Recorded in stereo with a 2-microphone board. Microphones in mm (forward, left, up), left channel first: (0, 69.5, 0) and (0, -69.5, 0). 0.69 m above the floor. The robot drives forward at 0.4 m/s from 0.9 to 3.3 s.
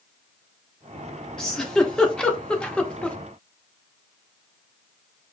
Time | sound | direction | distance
1.4 | a giggle | 5° left (ahead or behind) | 1.1 m